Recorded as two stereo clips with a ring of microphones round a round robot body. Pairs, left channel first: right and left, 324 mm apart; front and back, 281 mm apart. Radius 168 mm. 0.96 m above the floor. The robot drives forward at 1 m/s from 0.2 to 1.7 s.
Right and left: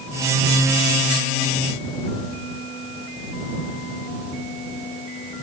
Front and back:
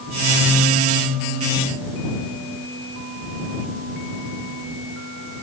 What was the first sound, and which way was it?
Only background noise.